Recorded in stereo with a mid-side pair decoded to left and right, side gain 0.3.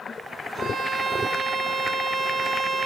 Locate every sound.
0.6 s a violin: 60° right, 1.4 m